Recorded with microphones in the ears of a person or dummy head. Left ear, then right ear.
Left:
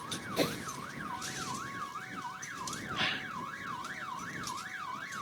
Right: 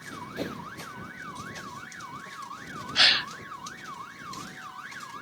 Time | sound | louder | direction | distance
0.4 | a whoosh | left 4 dB | 25° left (ahead or behind) | ?
3.0 | a gasp | right 14 dB | 50° right (ahead or behind) | ?